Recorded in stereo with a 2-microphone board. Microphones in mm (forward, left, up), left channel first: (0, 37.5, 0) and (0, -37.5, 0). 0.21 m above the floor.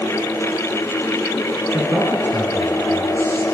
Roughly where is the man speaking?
Right.